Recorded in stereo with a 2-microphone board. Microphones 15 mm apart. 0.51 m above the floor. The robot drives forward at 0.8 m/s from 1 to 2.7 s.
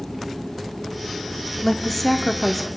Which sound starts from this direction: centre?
A woman speaking, at 1.6 s.